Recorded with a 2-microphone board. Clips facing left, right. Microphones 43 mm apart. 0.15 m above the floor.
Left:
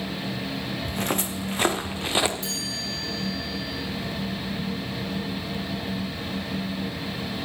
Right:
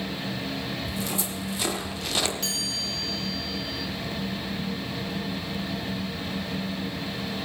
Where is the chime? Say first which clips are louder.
Even; 65° right (ahead or behind), 6 m.